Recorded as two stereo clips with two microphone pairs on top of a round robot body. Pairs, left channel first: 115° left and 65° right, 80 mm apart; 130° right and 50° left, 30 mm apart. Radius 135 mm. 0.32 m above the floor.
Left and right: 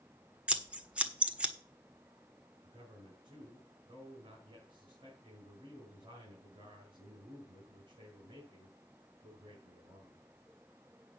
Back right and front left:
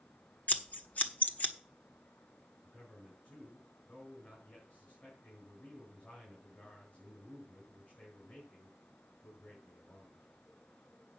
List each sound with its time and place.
0.5 s scissors: 140° right, 1.7 m
2.6 s a man speaking: 95° right, 5.5 m